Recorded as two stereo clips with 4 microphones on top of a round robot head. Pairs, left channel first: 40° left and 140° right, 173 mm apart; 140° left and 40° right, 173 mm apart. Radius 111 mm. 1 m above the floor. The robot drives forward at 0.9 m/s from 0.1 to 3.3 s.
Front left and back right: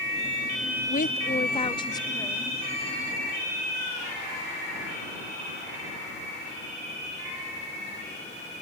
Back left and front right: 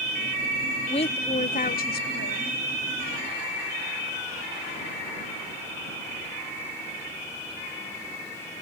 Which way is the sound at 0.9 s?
80° left.